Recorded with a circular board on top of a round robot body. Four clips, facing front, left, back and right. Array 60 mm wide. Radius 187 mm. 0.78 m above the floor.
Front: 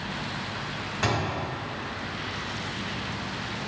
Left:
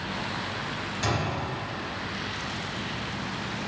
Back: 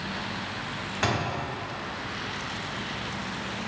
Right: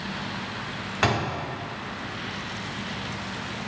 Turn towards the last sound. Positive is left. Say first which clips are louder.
# right 5 dB, even
turn(degrees=-95)